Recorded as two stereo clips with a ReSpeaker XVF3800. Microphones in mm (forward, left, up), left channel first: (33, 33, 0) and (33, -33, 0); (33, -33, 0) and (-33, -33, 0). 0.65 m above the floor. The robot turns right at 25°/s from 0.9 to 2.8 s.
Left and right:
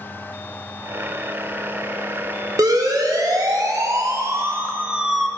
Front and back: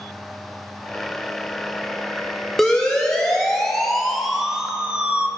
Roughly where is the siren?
Right.